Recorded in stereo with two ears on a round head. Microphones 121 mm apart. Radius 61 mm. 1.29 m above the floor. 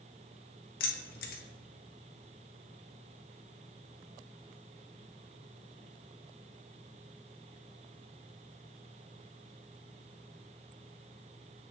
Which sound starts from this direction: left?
Keys jangling, at 0.8 s.